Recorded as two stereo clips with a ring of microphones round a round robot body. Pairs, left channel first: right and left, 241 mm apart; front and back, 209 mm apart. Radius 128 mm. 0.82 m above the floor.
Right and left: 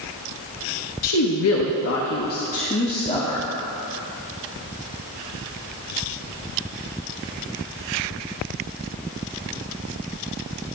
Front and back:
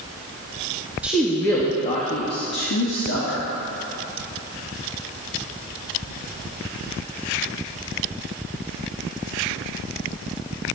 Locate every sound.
1.0 s a woman speaking: 95° right, 1.2 m; by 3.5 s 15° right, 1.7 m